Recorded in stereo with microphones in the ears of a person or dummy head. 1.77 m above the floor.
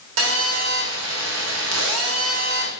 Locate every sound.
0.2 s a phone buzzing: 75° right (ahead or behind), 4 m